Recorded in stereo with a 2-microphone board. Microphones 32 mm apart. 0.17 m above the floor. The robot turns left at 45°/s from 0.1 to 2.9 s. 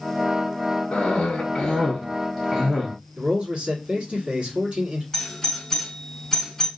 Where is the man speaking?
30° right (ahead or behind), 1.5 m.